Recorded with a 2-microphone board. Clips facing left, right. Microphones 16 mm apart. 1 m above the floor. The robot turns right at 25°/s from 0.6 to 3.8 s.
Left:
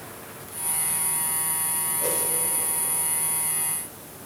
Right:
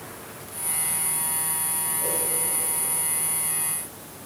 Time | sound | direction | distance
2.0 | a whoosh | 25° left (ahead or behind) | 1.2 m